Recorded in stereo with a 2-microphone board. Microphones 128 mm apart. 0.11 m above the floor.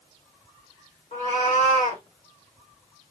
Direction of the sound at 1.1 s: 70° left (ahead or behind).